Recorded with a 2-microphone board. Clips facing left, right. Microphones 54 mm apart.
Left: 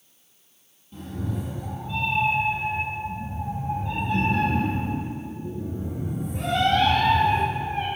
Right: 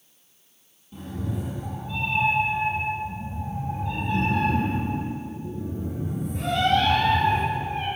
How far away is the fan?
No fan in this recording.